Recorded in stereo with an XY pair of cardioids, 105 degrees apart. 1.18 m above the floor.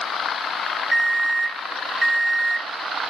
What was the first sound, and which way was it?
An alarm clock, 20° right.